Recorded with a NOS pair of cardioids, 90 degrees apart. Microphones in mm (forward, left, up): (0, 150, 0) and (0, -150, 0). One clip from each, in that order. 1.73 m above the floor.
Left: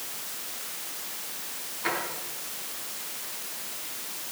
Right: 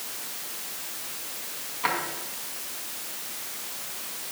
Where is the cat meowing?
No cat meowing in this recording.